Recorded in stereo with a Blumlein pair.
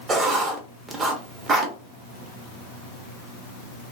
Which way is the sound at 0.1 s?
20° right.